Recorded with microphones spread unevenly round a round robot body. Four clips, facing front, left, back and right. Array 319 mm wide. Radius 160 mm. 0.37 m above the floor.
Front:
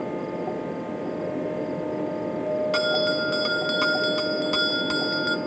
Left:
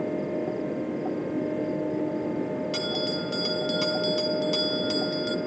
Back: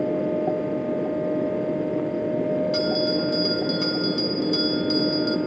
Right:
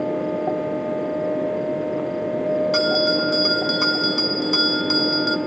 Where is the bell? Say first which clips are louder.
Right 10 dB, back 1 dB; 30° right, 0.8 m.